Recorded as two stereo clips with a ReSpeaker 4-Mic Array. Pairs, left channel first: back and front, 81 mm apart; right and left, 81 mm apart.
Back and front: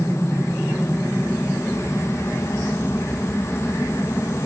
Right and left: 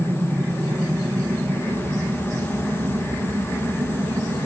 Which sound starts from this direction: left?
An aircraft, at 0.0 s.